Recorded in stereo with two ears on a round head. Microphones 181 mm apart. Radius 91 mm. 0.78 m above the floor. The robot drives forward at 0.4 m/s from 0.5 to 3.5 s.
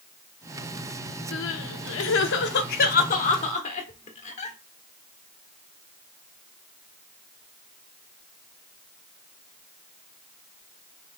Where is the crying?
60° left (ahead or behind), 0.5 m; by 4.6 s 35° left (ahead or behind), 0.9 m.